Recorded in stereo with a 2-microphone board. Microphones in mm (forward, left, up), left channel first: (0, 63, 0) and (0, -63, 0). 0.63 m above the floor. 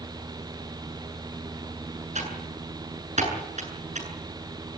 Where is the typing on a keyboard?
65° right (ahead or behind), 8 m.